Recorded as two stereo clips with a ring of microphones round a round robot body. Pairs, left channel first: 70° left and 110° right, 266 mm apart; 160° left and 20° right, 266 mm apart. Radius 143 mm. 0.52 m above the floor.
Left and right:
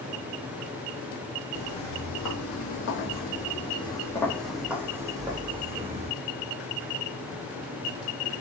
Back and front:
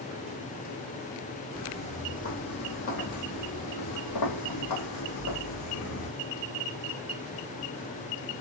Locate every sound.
1.5 s footsteps: 85° left, 1.6 m; by 6.1 s straight behind, 2.0 m